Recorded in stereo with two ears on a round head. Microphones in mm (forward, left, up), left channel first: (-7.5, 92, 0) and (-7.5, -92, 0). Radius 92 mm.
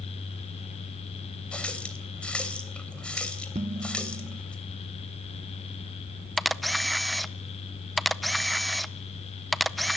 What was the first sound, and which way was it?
A running tap, 5° left (ahead or behind).